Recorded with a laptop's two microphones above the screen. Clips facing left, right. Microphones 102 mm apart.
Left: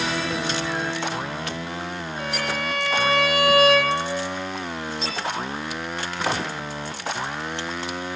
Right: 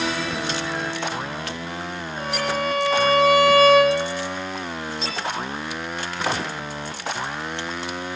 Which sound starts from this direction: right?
A violin, at 2.2 s.